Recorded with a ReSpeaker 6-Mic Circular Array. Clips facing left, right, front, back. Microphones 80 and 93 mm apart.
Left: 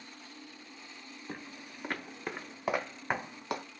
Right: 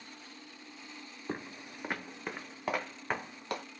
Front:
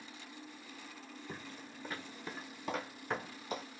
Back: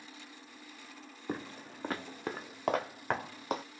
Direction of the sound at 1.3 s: 150° right.